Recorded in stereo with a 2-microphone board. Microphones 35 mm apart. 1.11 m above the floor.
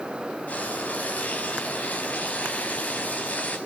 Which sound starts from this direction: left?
Frying, at 0.5 s.